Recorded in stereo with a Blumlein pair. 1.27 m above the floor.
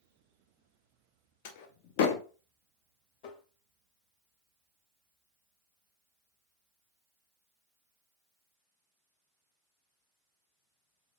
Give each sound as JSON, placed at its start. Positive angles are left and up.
{"t": 1.4, "sound": "a door slam", "azimuth_deg": 50, "distance_m": 0.7}
{"t": 3.2, "sound": "tapping", "azimuth_deg": 40, "distance_m": 0.7}